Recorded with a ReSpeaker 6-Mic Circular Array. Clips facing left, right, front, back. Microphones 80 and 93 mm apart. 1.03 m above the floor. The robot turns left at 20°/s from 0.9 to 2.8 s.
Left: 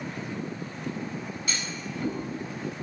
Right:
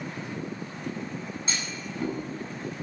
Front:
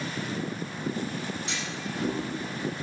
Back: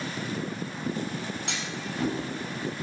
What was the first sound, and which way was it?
A clunk, 155° right.